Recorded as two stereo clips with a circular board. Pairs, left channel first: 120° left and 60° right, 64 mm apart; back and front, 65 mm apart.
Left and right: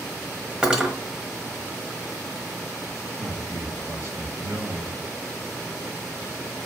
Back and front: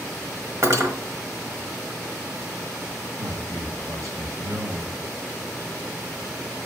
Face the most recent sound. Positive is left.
turn(degrees=-10)